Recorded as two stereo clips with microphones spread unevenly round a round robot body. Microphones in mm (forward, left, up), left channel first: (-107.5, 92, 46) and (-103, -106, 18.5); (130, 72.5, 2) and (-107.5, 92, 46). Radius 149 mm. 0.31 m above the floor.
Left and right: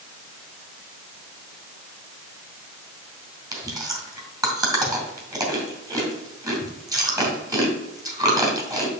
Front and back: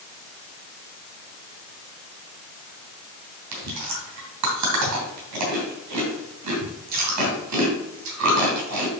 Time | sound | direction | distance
3.5 | chewing | 155° right | 2.5 m